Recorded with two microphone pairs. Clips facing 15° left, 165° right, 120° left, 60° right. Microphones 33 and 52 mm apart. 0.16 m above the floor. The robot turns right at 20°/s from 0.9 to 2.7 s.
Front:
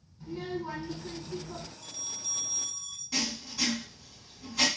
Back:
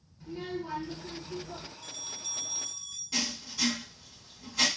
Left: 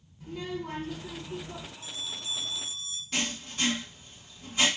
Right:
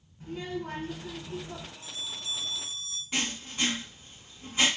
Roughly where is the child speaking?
Right.